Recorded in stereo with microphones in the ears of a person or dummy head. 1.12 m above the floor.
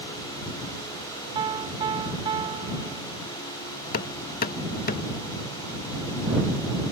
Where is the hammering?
45° left (ahead or behind).